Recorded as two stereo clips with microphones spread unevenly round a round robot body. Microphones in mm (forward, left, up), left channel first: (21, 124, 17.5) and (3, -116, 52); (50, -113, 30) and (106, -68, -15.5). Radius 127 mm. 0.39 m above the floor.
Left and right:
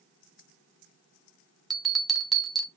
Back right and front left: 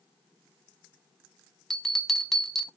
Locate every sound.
1.7 s a bell: 10° left, 1.5 m